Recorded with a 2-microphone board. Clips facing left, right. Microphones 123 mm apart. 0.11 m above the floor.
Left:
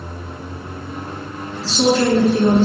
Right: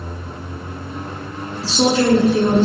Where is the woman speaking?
10° right (ahead or behind), 1.0 m.